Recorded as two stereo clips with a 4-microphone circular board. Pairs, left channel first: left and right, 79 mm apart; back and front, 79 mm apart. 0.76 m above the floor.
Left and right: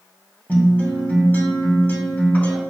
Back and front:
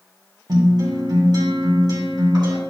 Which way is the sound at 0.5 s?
25° left.